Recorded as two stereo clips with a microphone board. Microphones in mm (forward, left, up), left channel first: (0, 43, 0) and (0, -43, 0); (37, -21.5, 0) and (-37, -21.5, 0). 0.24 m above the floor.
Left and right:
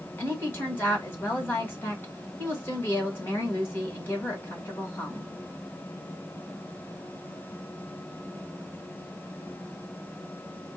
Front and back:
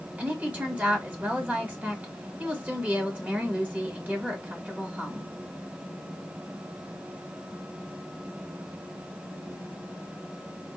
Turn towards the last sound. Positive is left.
turn(degrees=130)